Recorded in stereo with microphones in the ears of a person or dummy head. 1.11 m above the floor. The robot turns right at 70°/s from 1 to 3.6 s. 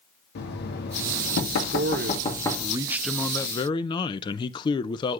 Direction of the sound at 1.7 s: 100° right.